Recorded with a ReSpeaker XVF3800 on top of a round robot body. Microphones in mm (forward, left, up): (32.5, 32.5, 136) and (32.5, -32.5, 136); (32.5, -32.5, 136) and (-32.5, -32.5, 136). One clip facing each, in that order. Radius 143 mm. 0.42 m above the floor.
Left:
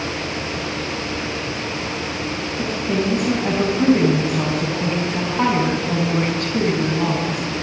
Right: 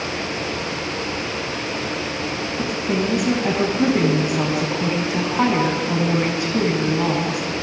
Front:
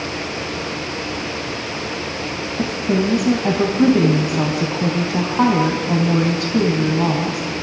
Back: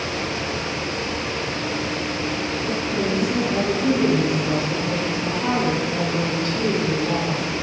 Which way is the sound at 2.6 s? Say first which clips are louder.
Left 1 dB, front 7 dB; 10° right.